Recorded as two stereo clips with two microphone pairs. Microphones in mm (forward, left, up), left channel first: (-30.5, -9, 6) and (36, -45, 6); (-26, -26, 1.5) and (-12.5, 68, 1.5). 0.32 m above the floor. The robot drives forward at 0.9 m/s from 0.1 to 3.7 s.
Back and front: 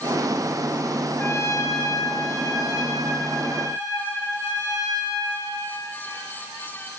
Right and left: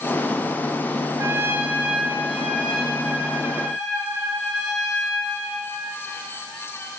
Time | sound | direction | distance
1.2 | a trumpet | 100° left | 0.5 m